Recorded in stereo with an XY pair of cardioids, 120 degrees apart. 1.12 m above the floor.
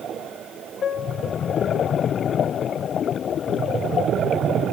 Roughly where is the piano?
Ahead left.